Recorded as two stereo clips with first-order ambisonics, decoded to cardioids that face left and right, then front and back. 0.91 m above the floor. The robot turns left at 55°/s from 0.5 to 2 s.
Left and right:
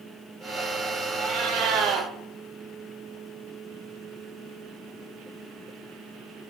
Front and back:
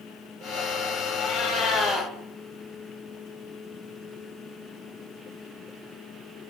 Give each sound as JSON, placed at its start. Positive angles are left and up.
{"t": 1.2, "sound": "a cat meowing", "azimuth_deg": -35, "distance_m": 0.7}